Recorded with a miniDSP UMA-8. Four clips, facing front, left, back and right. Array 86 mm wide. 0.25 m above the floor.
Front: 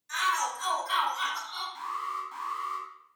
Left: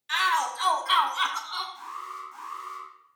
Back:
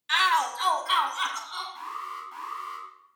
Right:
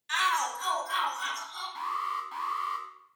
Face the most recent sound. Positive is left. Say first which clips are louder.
# right 6 dB, front 2 dB
turn(degrees=-80)